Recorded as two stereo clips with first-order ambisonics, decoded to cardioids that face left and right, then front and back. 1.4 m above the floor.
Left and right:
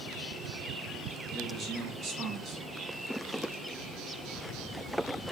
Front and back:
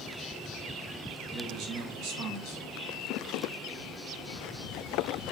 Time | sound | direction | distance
1.3 | a man speaking | 145° right | 0.9 m